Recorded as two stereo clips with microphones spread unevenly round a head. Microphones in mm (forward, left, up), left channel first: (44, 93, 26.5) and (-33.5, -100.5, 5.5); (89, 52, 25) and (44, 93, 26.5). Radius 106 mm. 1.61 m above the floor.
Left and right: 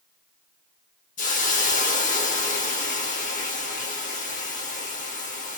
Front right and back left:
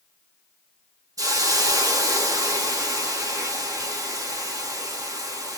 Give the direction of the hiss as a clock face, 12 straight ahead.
8 o'clock.